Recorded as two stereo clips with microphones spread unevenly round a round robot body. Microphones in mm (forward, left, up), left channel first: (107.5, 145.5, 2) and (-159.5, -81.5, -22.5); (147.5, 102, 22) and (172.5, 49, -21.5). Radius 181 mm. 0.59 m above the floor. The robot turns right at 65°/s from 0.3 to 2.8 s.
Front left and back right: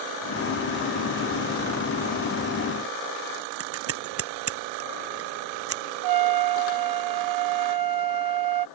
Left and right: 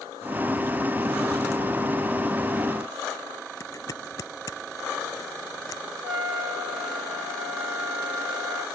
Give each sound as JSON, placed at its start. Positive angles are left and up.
{"t": 3.6, "sound": "scissors", "azimuth_deg": 170}
{"t": 6.0, "sound": "a trumpet", "azimuth_deg": -120}